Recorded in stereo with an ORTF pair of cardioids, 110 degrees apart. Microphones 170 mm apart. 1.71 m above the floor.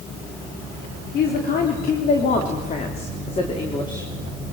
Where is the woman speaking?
70° left, 4 m; by 4.1 s 25° left, 3.5 m.